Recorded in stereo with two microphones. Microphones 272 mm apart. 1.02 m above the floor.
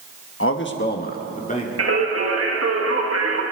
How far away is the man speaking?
About 1.1 m.